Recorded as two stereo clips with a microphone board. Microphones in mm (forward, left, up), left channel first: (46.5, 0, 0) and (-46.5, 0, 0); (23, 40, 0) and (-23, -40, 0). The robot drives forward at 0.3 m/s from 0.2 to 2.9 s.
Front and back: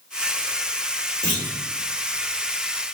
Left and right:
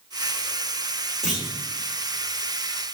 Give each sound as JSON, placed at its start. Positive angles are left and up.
{"t": 1.2, "sound": "a clunk", "azimuth_deg": 155, "distance_m": 2.0}